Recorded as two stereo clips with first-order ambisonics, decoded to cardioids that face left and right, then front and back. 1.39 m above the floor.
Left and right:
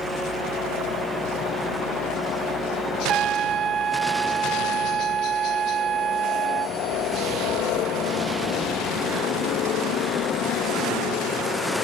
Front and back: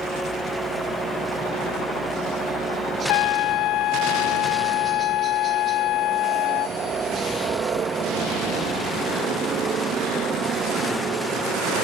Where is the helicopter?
110° left; by 11.8 s 130° left.